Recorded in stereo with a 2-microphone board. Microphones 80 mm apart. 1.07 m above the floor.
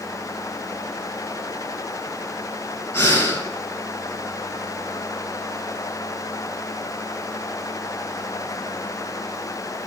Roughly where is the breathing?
Left.